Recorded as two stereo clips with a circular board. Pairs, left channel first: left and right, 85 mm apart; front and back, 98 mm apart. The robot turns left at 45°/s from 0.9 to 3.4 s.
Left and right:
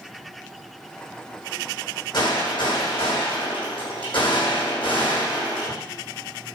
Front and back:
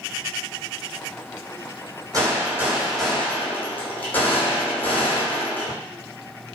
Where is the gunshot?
130° left, 6 m; by 5.7 s 70° left, 6 m.